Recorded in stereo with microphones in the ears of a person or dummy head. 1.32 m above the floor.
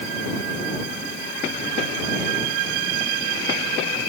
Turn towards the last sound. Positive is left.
No sound to turn to.